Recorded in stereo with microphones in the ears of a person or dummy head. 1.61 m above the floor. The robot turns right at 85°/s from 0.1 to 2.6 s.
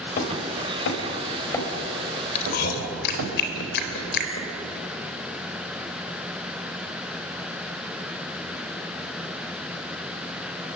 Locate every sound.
0.2 s hammering: 45° left (ahead or behind), 4 m; by 3.3 s 70° right (ahead or behind), 4 m
2.4 s chewing: 40° left (ahead or behind), 3.5 m; by 4.5 s 60° left (ahead or behind), 3.5 m